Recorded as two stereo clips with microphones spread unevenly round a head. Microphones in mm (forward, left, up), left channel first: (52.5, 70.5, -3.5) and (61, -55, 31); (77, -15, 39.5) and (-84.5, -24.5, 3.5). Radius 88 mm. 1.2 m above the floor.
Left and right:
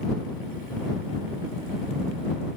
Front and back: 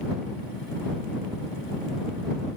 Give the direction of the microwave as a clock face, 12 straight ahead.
No microwave in this recording.